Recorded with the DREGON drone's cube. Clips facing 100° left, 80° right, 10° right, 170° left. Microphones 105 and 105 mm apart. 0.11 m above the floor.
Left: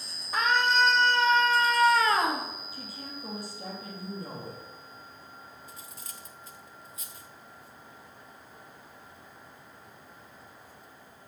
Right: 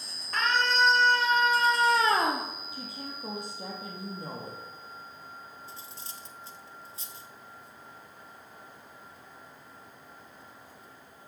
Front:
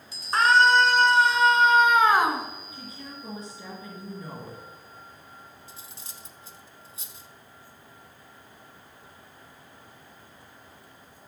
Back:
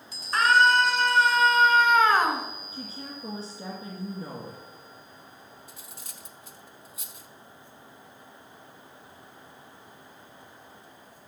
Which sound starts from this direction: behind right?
A woman speaking, at 2.7 s.